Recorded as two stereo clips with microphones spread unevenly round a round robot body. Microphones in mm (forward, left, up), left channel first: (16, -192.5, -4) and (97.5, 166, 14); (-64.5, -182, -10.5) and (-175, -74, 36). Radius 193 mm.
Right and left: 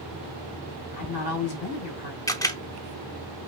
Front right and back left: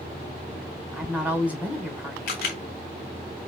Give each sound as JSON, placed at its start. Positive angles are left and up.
{"t": 0.9, "sound": "a woman speaking", "azimuth_deg": -140, "distance_m": 2.0}
{"t": 2.3, "sound": "a camera shutter", "azimuth_deg": -20, "distance_m": 0.7}